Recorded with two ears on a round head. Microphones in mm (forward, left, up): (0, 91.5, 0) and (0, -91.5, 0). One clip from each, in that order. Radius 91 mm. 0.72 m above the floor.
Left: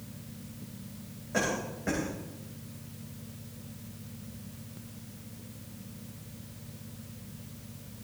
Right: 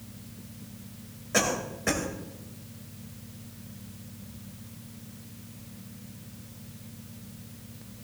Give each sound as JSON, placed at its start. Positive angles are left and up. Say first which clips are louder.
{"t": 1.3, "sound": "a cough", "louder": "right 4 dB", "side_deg": -75, "distance_m": 2.5}